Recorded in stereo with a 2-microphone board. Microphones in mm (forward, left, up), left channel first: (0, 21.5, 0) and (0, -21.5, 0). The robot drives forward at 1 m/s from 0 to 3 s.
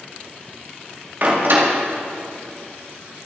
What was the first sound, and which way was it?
A door slam, 45° right (ahead or behind).